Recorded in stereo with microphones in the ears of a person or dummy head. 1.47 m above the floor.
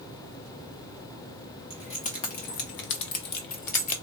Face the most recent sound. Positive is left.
turn(degrees=40)  # may be behind; listen again after turning